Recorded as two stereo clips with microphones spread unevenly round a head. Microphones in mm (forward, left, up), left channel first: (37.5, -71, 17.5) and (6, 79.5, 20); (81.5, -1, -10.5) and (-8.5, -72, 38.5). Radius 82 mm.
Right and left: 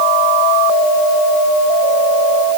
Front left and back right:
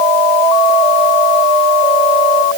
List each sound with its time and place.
Only background noise.